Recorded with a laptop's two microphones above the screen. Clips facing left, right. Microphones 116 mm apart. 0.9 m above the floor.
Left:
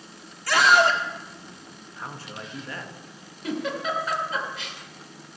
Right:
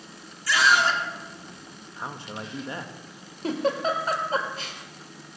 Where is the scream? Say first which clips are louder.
Left 3 dB; 50° left (ahead or behind), 2.0 m.